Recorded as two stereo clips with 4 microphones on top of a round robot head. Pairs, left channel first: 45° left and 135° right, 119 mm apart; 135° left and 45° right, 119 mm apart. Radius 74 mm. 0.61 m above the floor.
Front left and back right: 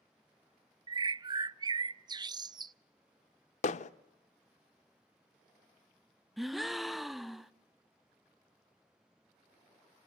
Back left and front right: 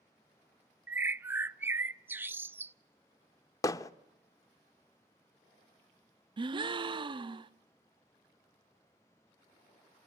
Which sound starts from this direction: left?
Hammering, at 3.6 s.